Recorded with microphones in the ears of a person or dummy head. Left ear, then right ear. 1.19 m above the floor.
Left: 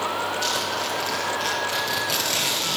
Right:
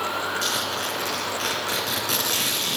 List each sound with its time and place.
0.4 s a zipper: 40° right (ahead or behind), 3.5 m